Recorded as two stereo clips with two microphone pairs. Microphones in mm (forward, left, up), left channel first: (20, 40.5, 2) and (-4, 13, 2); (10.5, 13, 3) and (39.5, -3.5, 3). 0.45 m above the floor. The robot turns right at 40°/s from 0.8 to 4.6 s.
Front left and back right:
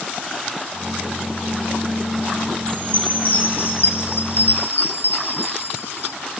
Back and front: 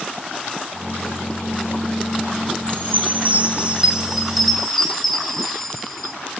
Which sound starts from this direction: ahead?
A chime, at 2.7 s.